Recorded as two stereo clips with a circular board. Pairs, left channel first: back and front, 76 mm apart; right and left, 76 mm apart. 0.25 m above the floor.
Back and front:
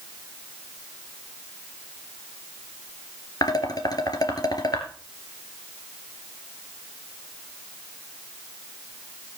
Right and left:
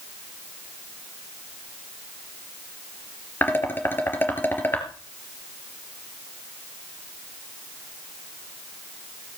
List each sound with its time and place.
3.4 s dishes clattering: 155° right, 3 m